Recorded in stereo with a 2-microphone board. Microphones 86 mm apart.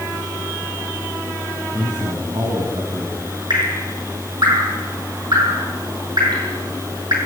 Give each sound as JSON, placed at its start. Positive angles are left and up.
{"t": 1.7, "sound": "a man speaking", "side_deg": -70, "distance_m": 6.0}
{"t": 3.5, "sound": "dripping", "side_deg": -60, "distance_m": 7.5}